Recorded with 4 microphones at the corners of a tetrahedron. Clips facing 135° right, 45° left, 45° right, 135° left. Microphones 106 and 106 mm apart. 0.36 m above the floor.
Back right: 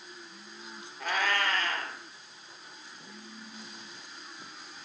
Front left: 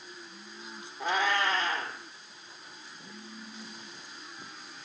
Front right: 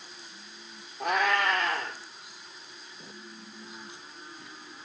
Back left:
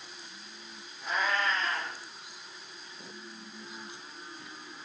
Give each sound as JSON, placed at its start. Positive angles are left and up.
{"t": 1.0, "sound": "a cat meowing", "azimuth_deg": -25, "distance_m": 2.5}